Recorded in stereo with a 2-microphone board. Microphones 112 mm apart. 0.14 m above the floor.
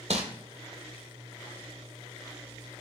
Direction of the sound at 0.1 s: 80° right.